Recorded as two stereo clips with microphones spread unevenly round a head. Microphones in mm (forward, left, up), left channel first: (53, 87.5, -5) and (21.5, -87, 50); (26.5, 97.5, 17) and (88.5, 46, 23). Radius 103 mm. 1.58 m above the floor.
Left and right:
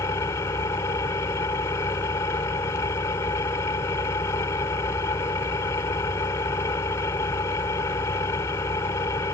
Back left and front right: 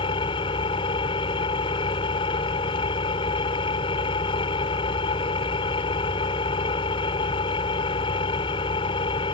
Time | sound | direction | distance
0.0 | an engine running | 160° left | ?